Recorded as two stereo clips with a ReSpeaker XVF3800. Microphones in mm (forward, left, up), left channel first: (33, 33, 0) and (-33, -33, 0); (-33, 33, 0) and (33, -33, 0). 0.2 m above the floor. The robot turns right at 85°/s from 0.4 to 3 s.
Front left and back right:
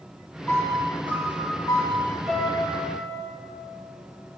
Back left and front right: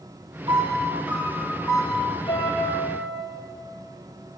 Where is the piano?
20° right, 4 m; by 3.3 s 165° right, 4 m.